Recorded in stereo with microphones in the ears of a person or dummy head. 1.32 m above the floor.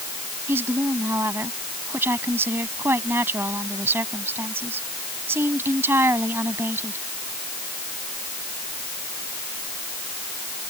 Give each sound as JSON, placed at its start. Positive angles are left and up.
{"t": 0.5, "sound": "a woman speaking", "side_deg": -15}